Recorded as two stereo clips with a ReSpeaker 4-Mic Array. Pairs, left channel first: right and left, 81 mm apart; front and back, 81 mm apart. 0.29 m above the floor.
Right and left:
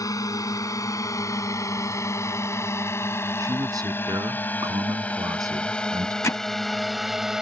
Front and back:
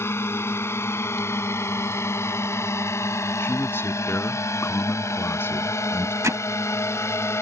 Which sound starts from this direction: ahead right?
A drone, at 0.0 s.